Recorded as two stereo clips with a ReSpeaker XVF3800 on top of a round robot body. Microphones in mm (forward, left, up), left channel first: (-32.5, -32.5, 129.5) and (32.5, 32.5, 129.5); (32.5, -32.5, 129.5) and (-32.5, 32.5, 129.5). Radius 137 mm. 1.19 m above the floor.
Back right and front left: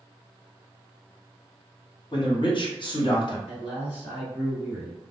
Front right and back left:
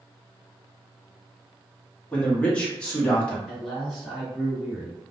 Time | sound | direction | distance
2.1 | a man speaking | 120° right | 1.1 m
3.5 | a man speaking | 130° right | 1.6 m